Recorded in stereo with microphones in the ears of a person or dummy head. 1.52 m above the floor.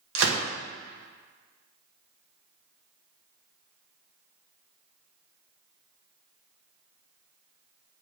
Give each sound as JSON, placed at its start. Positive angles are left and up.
{"t": 0.1, "sound": "a gunshot", "side_deg": -80, "distance_m": 1.3}